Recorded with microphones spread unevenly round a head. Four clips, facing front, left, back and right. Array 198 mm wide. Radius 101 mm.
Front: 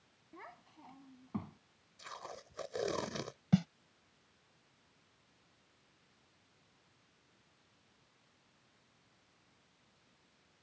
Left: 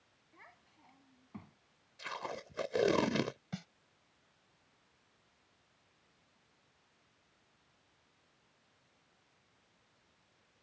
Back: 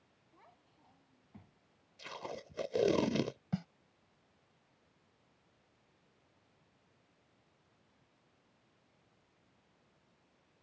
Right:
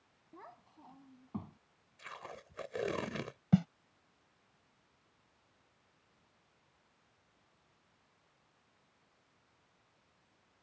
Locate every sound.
0.3 s a child speaking: 40° right; by 1.6 s 25° right
2.0 s tape being pulled: 140° left
3.5 s a snare drum: 50° right